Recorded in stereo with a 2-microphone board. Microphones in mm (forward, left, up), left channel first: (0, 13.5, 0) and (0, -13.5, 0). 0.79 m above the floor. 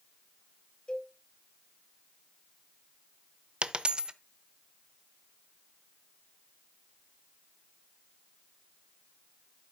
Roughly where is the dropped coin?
Right.